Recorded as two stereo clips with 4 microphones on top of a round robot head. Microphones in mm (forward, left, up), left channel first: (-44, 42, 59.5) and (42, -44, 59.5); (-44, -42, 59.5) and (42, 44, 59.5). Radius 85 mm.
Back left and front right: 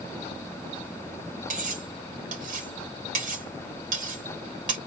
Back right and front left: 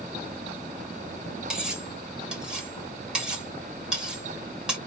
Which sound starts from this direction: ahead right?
Cutlery clinking, at 1.5 s.